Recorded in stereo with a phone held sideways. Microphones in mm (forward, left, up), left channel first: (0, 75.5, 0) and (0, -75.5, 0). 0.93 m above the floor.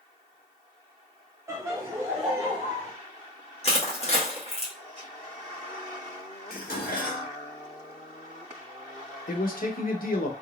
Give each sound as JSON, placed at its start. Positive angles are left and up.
{"t": 1.5, "sound": "laughter", "side_deg": -20, "distance_m": 0.6}
{"t": 3.6, "sound": "crushing", "side_deg": 45, "distance_m": 1.3}
{"t": 6.5, "sound": "dishes clattering", "side_deg": 80, "distance_m": 1.1}
{"t": 9.3, "sound": "a man speaking", "side_deg": 75, "distance_m": 0.8}